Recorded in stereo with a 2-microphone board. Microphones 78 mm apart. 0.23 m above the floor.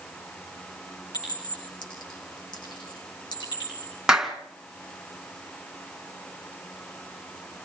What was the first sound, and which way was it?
A clink, 75° left (ahead or behind).